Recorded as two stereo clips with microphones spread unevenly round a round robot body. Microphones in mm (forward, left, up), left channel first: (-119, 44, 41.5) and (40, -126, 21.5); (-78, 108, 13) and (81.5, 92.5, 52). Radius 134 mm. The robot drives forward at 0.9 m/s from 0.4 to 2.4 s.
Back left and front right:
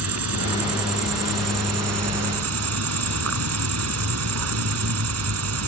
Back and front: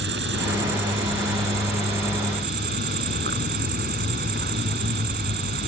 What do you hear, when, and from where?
0.0 s an insect: 45° right; by 5.7 s 55° right